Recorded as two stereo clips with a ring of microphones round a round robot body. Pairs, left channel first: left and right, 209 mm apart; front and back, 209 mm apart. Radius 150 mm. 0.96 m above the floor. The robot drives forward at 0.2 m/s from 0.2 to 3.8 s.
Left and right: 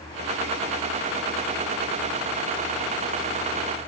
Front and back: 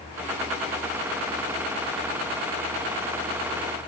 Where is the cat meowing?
I don't hear a cat meowing.